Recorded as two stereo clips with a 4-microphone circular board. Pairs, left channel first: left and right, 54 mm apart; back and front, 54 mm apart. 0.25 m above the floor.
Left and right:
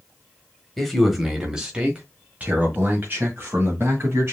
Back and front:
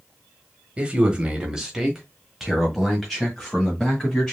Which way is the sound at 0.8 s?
10° left.